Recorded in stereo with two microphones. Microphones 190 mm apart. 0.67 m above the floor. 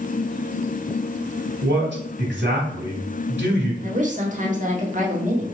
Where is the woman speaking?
40° right (ahead or behind), 1.4 m.